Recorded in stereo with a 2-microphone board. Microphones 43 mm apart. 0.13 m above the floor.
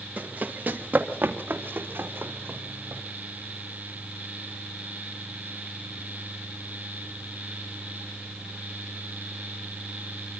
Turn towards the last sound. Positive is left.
turn(degrees=-60)  # may be behind; listen again after turning